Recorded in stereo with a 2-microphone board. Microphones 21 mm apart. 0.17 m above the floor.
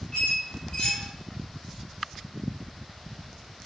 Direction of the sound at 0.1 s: 50° left (ahead or behind).